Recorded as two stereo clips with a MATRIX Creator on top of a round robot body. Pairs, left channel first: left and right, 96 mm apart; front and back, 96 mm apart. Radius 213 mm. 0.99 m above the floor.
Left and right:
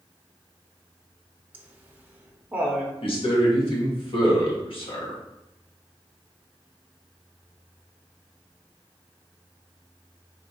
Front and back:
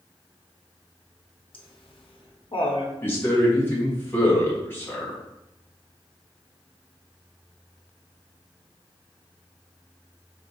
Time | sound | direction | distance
1.5 | laughter | 15° right | 0.9 m
3.0 | a man speaking | 65° left | 1.7 m